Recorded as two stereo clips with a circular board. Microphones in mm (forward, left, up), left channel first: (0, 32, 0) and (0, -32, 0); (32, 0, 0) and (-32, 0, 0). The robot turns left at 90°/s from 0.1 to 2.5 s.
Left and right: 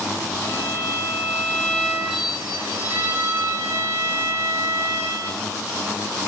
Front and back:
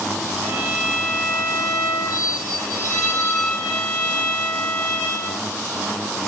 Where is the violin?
130° left, 2 m; by 5.5 s 55° right, 2 m.